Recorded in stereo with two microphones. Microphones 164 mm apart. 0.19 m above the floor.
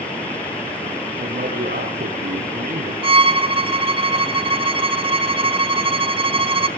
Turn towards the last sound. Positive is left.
turn(degrees=-35)  # may be behind; listen again after turning